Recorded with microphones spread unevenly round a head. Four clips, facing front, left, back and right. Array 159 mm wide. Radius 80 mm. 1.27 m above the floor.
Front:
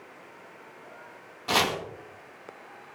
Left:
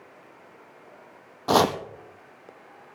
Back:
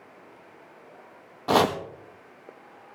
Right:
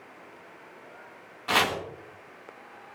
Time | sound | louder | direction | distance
1.5 | chopping | left 6 dB, back 6 dB | 125° left | 0.8 m